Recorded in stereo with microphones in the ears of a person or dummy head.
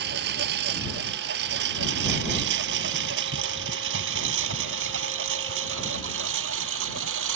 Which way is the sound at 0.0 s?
60° right (ahead or behind).